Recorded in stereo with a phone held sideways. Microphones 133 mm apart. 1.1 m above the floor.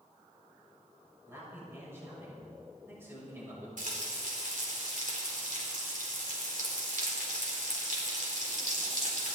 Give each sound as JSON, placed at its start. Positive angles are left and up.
{"t": 1.3, "sound": "a man speaking", "side_deg": -15, "distance_m": 6.5}
{"t": 3.8, "sound": "frying", "side_deg": -75, "distance_m": 3.5}